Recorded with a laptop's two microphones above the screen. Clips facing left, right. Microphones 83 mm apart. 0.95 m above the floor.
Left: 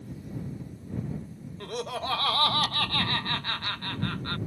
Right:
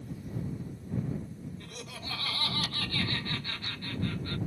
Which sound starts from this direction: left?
Laughter, at 1.6 s.